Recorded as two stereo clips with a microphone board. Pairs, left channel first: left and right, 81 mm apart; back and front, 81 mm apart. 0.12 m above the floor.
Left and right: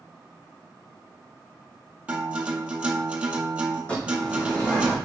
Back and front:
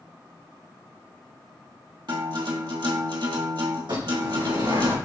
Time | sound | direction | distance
2.1 | a guitar | 20° right | 1.9 m
3.9 | a bird | 15° left | 3.5 m